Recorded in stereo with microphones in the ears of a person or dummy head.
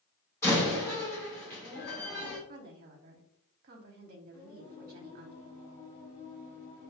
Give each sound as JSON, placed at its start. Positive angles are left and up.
{"t": 0.4, "sound": "a door slam", "side_deg": 10, "distance_m": 2.0}
{"t": 2.5, "sound": "a woman speaking", "side_deg": -50, "distance_m": 0.9}
{"t": 4.3, "sound": "singing", "side_deg": 15, "distance_m": 1.3}